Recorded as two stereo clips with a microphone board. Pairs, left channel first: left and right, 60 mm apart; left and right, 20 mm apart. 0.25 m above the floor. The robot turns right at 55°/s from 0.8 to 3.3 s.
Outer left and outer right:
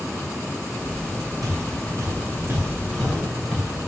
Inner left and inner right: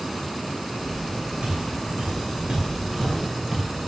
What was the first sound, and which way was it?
Footsteps, 85° right.